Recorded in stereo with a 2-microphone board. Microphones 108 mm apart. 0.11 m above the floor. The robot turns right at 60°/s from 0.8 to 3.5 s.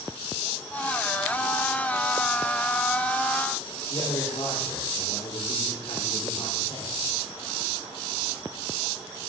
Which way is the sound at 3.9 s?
75° left (ahead or behind).